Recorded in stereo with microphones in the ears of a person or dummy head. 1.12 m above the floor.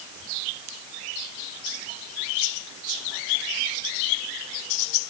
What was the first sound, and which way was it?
Only background noise.